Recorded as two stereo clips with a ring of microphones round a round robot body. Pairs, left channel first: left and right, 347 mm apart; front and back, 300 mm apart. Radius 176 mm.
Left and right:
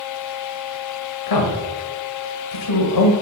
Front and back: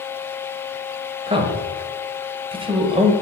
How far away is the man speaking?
About 1.7 m.